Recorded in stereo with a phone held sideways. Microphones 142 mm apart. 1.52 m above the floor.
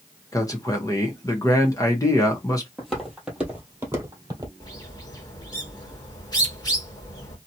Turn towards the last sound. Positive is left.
turn(degrees=30)  # may be behind; listen again after turning